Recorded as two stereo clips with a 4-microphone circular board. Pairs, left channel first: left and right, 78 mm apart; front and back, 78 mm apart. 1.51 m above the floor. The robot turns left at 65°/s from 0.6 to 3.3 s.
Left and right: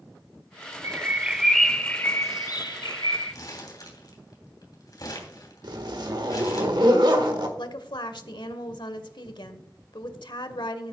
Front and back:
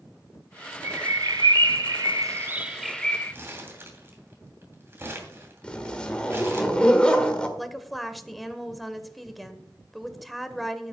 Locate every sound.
0.8 s a bird: 135° right, 0.5 m; by 3.3 s 65° left, 0.5 m
3.3 s crumpling: 120° left, 3 m
5.6 s a zipper: 75° right, 1.6 m
7.6 s a woman speaking: 90° left, 1.2 m